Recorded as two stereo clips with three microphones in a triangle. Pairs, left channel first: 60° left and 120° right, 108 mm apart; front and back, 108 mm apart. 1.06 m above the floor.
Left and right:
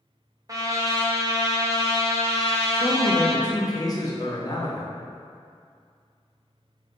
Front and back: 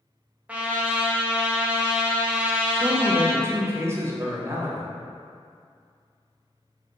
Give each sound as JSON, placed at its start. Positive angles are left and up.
{"t": 0.5, "sound": "a trumpet", "azimuth_deg": -115, "distance_m": 0.6}
{"t": 2.7, "sound": "a man speaking", "azimuth_deg": 115, "distance_m": 0.8}